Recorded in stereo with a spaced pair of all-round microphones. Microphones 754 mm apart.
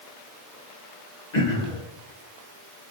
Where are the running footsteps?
I don't hear running footsteps.